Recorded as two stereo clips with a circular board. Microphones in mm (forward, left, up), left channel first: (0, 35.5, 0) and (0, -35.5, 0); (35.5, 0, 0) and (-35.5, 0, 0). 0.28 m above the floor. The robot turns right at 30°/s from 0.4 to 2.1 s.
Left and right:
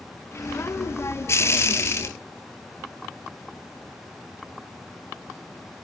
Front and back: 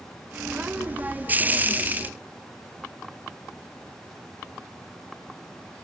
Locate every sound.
Only background noise.